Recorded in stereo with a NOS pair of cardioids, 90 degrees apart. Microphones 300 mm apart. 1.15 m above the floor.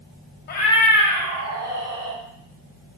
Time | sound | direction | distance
0.5 | a cat meowing | 35° left | 1.0 m